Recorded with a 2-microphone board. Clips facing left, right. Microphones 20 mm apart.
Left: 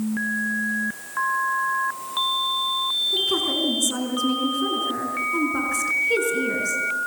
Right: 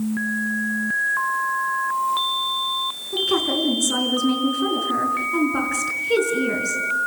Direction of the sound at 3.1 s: 15° right (ahead or behind).